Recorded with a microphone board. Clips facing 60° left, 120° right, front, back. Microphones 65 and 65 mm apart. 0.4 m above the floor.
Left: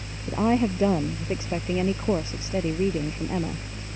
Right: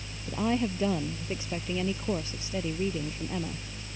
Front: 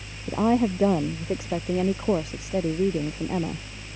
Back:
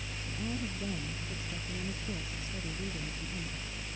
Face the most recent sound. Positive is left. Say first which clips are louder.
# left 6 dB, front 18 dB
turn(degrees=-5)